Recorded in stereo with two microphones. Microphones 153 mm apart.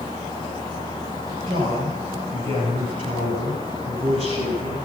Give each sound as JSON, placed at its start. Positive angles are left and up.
{"t": 1.5, "sound": "a man speaking", "side_deg": -35, "distance_m": 7.0}